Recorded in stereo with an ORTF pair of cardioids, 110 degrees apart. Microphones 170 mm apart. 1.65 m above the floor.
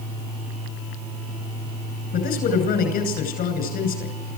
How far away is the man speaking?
About 10 m.